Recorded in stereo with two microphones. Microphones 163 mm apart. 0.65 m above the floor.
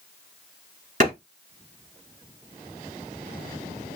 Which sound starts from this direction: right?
A clap, at 1.0 s.